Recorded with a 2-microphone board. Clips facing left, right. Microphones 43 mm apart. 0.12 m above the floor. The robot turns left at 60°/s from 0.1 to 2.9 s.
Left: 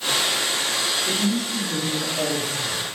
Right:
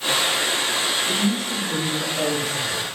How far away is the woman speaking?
About 1.3 m.